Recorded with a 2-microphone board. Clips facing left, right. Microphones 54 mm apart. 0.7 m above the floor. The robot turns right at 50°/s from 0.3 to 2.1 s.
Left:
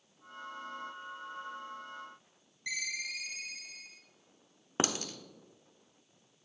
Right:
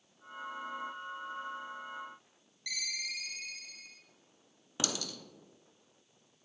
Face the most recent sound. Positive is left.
turn(degrees=40)  # may be behind; listen again after turning